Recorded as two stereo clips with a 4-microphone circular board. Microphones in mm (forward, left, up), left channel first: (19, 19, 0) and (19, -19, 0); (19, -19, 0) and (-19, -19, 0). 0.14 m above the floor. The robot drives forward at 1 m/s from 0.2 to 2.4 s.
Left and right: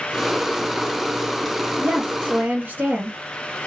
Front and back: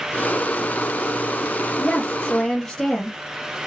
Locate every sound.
1.8 s a woman speaking: 55° right, 3 m; by 3.2 s 65° right, 3 m